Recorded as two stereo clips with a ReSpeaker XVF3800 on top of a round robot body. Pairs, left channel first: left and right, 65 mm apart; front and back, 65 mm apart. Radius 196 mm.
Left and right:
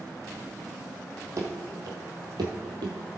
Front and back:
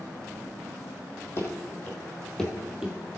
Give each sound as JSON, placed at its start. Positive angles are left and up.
{"t": 1.4, "sound": "running footsteps", "azimuth_deg": -50, "distance_m": 1.7}